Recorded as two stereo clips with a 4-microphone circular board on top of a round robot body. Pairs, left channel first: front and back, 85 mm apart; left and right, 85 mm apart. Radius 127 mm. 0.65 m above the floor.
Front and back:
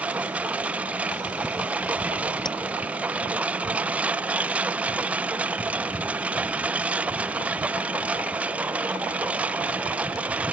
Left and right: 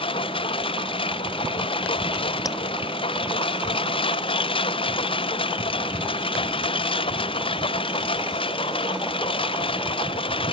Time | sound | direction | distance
0.0 | a lawn mower | 105° left | ?
2.5 | tapping | 40° left | ?